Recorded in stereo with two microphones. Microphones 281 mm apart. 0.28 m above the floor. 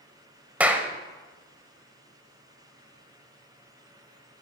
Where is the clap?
5° right (ahead or behind), 1.0 m.